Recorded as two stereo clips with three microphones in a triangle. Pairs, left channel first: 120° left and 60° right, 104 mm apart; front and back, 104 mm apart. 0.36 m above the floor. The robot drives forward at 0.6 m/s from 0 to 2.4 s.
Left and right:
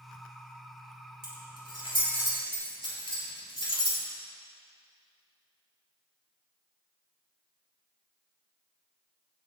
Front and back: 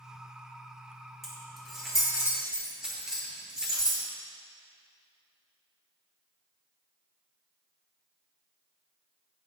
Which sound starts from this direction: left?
Keys jangling, at 1.2 s.